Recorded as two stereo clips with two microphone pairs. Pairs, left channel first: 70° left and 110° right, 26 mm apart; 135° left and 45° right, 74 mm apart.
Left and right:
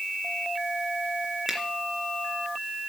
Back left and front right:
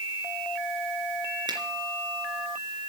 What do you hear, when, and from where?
1.5 s a finger snap: 45° right, 3 m